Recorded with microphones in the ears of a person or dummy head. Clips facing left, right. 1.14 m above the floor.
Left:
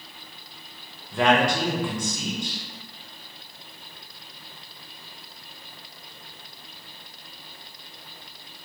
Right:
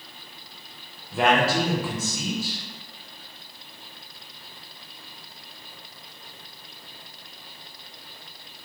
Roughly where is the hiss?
I don't hear a hiss.